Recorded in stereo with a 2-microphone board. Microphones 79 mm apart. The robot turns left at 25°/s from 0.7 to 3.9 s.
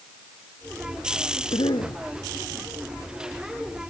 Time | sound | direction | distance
1.5 | a cough | 80° left | ?